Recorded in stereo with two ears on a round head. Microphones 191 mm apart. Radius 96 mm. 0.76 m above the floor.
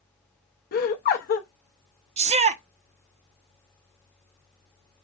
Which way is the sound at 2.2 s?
30° right (ahead or behind).